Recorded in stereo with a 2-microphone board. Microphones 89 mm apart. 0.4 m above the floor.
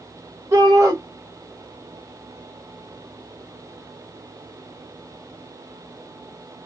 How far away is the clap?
I don't hear a clap.